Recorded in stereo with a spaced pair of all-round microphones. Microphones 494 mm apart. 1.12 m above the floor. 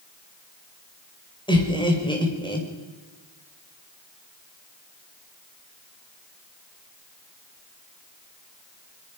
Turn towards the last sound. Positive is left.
turn(degrees=10)  # may be behind; listen again after turning